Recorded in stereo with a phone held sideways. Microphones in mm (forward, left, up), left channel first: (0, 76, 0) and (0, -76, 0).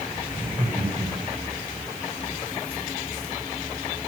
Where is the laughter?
35° right (ahead or behind), 6.5 m.